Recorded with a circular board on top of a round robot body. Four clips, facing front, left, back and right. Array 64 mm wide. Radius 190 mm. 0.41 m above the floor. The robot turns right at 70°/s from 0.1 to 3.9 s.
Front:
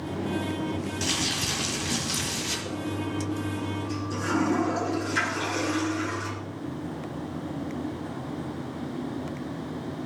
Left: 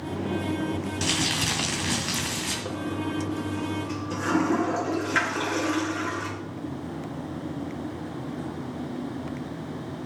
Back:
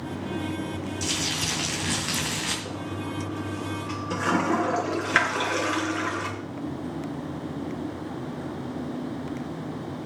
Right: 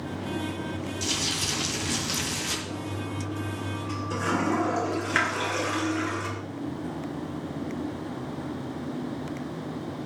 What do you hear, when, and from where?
1.0 s crumpling: 65° left, 2.5 m; by 2.5 s 170° left, 2.5 m
2.6 s a toilet flushing: 100° left, 3.5 m; by 6.3 s 170° right, 3.5 m